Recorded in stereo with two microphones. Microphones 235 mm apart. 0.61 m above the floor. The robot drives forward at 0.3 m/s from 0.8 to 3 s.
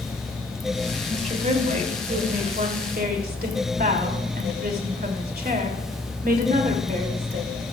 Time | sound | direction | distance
1.1 | a woman speaking | 35° right (ahead or behind) | 3 m